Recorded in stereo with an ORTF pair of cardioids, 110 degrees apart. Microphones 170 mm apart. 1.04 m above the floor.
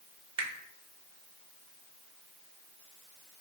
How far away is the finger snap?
About 0.9 m.